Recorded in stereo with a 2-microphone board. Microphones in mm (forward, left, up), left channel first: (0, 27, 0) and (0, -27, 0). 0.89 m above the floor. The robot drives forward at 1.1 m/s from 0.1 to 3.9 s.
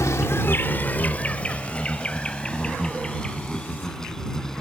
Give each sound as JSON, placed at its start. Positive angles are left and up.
{"t": 0.0, "sound": "an insect", "side_deg": 65}